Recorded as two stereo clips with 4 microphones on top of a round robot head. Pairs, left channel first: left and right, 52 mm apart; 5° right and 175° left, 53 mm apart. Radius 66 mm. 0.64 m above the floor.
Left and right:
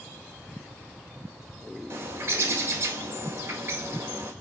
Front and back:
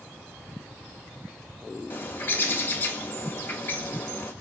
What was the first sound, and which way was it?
A bird, 55° right.